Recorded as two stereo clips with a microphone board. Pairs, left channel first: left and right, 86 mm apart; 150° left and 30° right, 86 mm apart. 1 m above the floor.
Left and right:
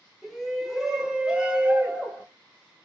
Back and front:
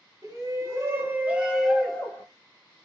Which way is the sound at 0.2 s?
Straight ahead.